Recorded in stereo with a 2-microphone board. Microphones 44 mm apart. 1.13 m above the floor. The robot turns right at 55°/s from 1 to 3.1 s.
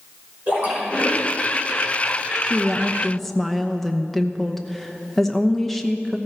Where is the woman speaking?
30° right, 0.9 m; by 6.2 s 5° left, 0.9 m.